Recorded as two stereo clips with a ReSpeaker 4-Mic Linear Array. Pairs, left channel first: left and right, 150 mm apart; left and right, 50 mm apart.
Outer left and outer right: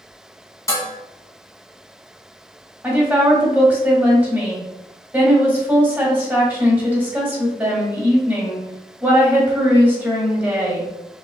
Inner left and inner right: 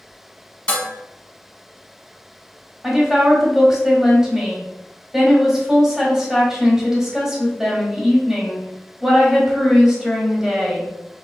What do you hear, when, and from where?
0.7 s dishes clattering: 20° left (ahead or behind), 1.3 m
2.8 s a woman speaking: 15° right (ahead or behind), 1.5 m